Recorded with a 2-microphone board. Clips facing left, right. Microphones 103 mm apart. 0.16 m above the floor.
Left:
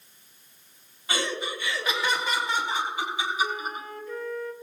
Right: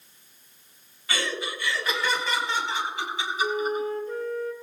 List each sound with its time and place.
1.1 s laughter: 25° left (ahead or behind), 1.4 m; by 3.9 s 10° left (ahead or behind), 4.5 m
3.4 s a flute: 40° right (ahead or behind), 1.3 m